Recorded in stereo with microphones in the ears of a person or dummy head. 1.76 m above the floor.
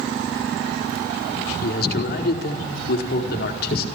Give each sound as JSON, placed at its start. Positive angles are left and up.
{"t": 1.6, "sound": "a man speaking", "side_deg": 60, "distance_m": 4.5}